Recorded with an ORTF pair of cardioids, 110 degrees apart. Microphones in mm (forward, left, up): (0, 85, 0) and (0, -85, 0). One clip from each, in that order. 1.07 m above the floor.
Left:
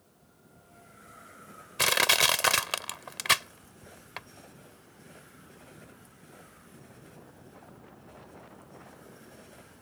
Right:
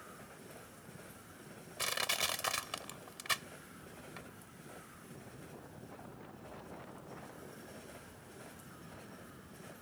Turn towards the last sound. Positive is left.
turn(degrees=70)